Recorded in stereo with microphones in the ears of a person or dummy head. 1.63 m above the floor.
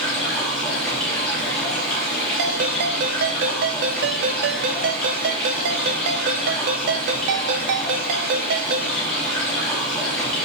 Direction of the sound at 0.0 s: 5° left (ahead or behind).